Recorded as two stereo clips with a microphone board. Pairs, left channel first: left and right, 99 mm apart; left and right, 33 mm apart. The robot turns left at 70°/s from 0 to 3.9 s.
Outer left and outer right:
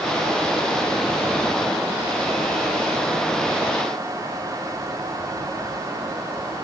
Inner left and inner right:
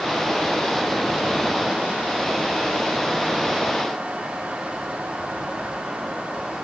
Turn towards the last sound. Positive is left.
No sound to turn to.